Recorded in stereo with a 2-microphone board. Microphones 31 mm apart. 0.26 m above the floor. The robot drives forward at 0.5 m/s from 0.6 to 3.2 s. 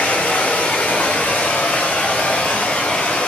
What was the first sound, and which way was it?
Running water, 75° left (ahead or behind).